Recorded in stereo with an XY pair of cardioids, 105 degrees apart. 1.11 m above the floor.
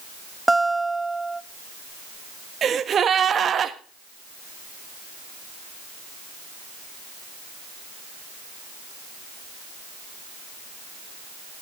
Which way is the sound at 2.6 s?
45° right.